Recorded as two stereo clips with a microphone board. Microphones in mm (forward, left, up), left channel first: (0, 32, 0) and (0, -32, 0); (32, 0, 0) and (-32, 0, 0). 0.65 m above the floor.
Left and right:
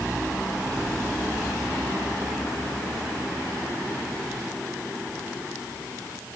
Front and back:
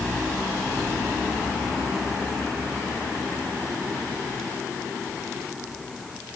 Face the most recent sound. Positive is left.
No sound to turn to.